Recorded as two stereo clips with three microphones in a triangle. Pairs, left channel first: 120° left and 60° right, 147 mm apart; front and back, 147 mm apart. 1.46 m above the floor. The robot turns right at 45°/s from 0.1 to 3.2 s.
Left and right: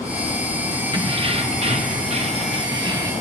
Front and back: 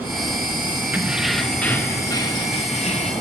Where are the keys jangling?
105° right, 0.9 m; by 3.1 s 10° right, 0.9 m.